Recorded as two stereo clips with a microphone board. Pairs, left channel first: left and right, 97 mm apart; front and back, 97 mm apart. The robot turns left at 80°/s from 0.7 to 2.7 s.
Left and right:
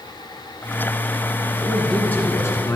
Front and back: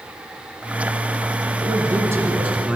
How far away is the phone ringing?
I don't hear a phone ringing.